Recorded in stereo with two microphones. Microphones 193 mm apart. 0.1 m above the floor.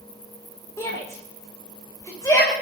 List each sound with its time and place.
0.8 s a shout: 15° left (ahead or behind), 6 m; by 2.5 s 20° left (ahead or behind), 7 m